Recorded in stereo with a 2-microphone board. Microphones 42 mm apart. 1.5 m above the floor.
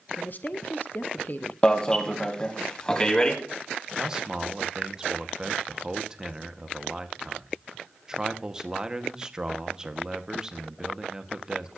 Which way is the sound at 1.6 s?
20° left (ahead or behind).